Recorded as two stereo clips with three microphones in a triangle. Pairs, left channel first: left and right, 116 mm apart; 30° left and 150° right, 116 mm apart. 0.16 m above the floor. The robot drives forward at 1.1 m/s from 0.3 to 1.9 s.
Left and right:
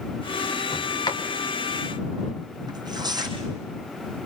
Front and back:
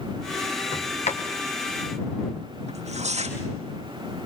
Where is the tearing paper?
145° right, 3.5 m.